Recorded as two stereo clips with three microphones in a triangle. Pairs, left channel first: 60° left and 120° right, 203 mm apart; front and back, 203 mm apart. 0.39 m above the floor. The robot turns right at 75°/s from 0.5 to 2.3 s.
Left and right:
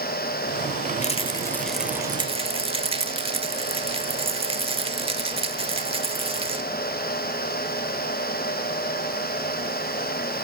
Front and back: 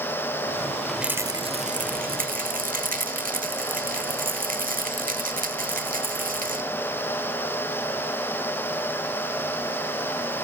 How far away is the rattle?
About 1.2 m.